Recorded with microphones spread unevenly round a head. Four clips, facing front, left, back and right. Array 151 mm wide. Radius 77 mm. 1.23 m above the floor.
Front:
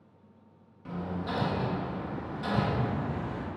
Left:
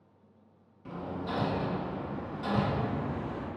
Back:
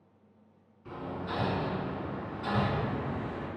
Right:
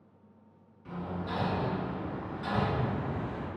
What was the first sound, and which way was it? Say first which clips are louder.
Hammering: left 1 dB, front 2 dB; 45° left.